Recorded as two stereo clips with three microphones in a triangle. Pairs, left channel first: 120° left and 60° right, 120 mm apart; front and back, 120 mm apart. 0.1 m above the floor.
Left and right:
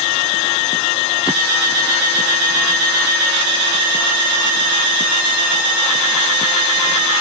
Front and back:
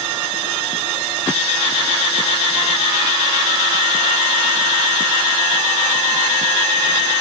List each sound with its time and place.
Only background noise.